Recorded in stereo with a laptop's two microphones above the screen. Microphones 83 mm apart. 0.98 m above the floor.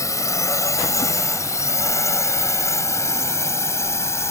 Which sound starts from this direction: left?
A drone, at 0.0 s.